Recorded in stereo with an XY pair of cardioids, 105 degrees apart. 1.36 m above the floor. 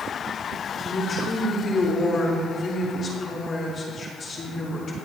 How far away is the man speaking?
About 2.5 m.